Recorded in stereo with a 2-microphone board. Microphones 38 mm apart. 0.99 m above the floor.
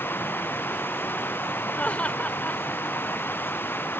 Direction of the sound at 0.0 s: 65° left (ahead or behind).